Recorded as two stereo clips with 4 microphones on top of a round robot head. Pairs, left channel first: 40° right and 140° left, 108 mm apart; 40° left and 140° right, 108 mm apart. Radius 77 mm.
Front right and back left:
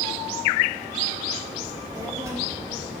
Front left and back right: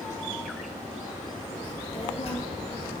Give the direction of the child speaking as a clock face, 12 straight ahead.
9 o'clock.